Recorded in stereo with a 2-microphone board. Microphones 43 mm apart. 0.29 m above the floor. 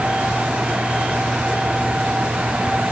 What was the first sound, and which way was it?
Only background noise.